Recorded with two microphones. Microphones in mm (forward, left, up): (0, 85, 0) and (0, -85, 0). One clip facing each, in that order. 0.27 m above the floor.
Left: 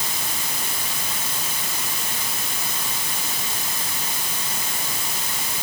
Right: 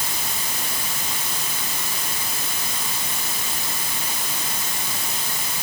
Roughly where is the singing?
No singing in this recording.